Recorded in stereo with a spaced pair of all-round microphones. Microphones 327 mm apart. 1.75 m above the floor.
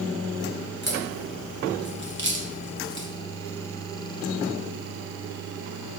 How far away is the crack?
About 1.9 m.